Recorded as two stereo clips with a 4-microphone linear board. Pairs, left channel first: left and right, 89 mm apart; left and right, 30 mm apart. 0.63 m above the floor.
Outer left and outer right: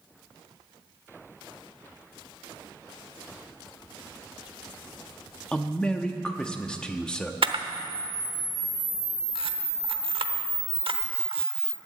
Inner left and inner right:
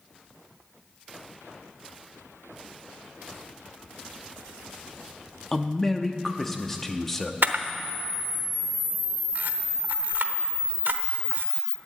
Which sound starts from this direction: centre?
A man speaking, at 5.5 s.